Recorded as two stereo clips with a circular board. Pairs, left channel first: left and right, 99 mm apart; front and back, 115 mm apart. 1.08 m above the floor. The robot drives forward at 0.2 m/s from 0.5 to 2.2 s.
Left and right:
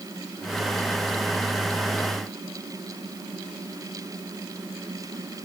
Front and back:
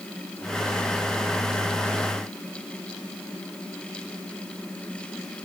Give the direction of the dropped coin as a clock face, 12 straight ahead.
No dropped coin in this recording.